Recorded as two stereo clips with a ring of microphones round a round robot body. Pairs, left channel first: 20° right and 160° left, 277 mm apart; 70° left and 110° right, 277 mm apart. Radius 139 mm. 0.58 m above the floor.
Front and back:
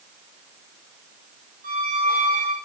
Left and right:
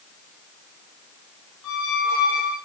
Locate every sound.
1.6 s a squeak: 95° left, 3 m